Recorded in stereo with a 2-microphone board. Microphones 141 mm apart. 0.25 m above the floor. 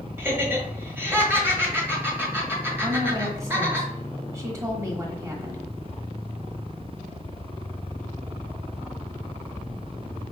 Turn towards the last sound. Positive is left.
turn(degrees=-20)  # may be behind; listen again after turning